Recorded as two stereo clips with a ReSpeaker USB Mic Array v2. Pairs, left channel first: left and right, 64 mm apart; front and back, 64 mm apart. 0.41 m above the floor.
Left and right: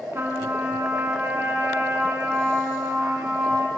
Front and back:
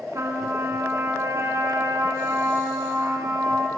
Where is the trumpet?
140° right, 3.5 m.